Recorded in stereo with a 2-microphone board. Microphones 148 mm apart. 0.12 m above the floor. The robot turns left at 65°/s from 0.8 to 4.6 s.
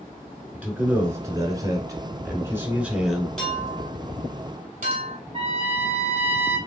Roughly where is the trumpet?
Right.